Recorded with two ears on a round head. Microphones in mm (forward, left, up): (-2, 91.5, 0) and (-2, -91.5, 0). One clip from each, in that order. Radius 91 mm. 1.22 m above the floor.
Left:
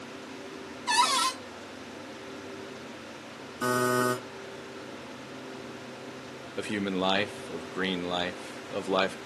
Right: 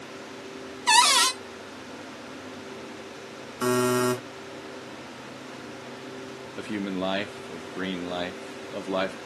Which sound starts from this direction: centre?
A man speaking, at 6.6 s.